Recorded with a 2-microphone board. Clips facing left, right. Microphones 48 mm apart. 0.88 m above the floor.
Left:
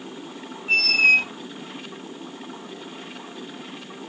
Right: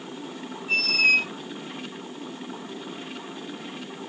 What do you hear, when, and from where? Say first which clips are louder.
0.7 s a squeak: left 3 dB; 45° left (ahead or behind), 1.1 m